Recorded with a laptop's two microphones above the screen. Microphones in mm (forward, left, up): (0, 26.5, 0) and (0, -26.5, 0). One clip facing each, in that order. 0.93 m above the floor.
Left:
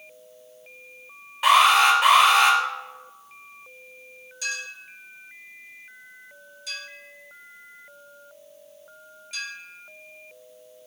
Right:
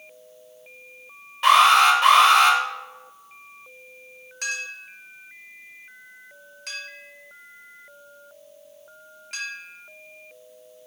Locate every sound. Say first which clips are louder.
1.4 s an alarm: right 2 dB; 5° left (ahead or behind), 3 m
4.4 s a clink: right 2 dB; 60° right (ahead or behind), 1.6 m